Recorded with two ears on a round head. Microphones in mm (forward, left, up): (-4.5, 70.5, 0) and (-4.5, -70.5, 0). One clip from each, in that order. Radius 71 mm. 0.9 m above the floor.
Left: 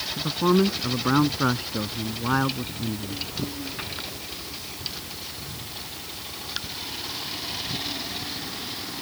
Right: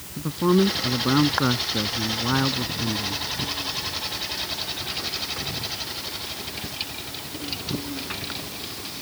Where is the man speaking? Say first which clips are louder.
Right 1 dB; 70° left (ahead or behind).